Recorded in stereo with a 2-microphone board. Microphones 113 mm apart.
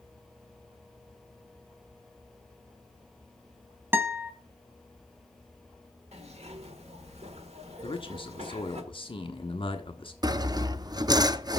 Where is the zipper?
70° right (ahead or behind), 1.5 m.